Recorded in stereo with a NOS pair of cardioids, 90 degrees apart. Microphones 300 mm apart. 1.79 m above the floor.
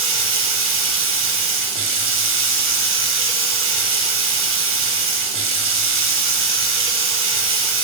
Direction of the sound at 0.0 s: 50° right.